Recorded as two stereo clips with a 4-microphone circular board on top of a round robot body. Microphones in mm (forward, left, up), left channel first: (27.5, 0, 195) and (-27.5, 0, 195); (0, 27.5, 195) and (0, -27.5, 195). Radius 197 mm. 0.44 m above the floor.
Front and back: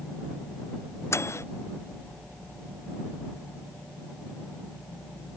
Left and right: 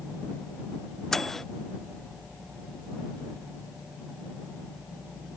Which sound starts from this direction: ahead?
A microwave, at 1.1 s.